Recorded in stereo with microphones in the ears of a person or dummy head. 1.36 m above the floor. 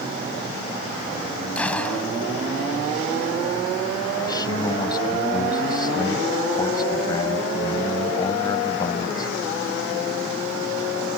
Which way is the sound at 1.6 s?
10° left (ahead or behind).